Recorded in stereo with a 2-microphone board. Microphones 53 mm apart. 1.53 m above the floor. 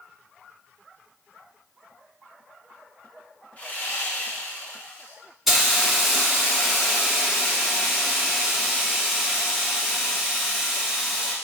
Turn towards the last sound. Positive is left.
turn(degrees=-5)  # may be behind; listen again after turning